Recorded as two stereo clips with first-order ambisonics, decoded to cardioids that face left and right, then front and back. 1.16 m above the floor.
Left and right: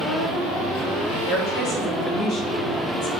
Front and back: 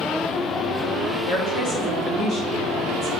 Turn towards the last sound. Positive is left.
turn(degrees=70)